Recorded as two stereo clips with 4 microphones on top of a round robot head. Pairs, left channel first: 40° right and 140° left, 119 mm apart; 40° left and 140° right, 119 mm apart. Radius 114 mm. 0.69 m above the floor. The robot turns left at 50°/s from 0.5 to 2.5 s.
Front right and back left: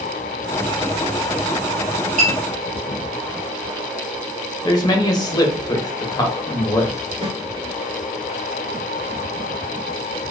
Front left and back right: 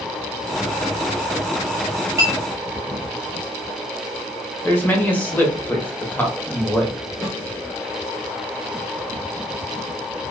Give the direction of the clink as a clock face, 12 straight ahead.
7 o'clock.